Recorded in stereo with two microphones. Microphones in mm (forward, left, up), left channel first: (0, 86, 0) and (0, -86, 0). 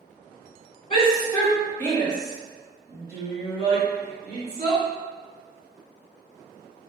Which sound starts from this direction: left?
A shout, at 0.9 s.